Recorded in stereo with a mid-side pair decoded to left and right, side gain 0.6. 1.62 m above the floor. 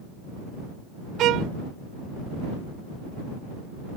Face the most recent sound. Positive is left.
turn(degrees=-60)